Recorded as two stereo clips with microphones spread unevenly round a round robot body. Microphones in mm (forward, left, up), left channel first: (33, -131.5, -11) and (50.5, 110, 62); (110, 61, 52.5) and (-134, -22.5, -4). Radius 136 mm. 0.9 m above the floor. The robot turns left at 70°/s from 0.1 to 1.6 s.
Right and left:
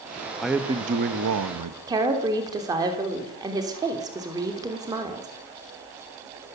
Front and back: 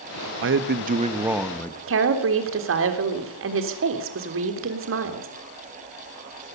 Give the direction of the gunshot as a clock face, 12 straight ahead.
I don't hear a gunshot.